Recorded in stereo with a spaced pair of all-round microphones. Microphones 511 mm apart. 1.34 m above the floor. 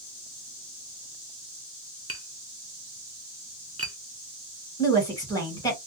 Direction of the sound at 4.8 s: 5° left (ahead or behind).